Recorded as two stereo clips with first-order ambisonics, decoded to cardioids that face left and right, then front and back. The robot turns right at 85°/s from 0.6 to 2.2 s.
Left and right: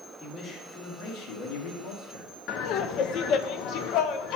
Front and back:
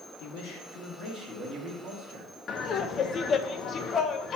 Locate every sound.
0.2 s a man speaking: 10° left, 1.5 m; by 2.3 s 150° left, 1.5 m
2.5 s laughter: 55° left, 0.6 m